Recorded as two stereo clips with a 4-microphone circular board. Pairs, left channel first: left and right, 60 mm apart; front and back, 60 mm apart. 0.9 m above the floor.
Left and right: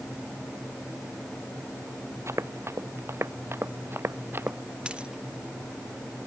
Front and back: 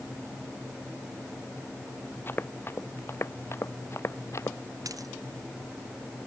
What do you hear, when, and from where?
2.3 s running footsteps: 50° right; by 4.6 s 40° right
4.8 s a dropped coin: 165° right